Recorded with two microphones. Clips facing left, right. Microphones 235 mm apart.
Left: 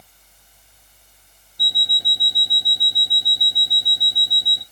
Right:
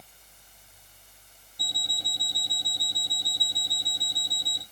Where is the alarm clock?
10° left (ahead or behind), 0.8 m.